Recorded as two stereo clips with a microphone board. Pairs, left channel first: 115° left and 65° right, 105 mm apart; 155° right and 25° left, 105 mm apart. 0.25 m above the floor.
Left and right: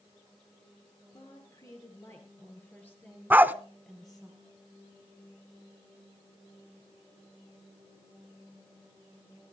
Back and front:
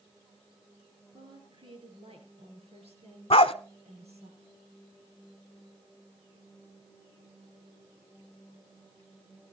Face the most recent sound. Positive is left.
turn(degrees=-140)